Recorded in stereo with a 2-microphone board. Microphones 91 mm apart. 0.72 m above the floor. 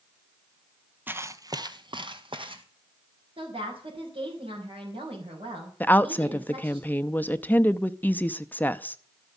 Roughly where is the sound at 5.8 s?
Centre.